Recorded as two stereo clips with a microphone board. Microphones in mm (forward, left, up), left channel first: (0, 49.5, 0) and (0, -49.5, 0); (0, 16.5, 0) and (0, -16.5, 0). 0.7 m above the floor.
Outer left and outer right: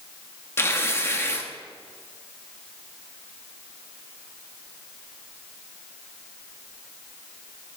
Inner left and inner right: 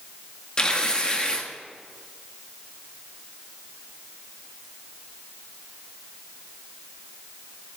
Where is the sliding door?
No sliding door in this recording.